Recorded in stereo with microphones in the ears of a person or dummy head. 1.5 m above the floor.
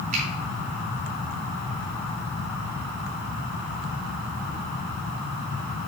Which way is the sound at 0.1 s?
45° right (ahead or behind).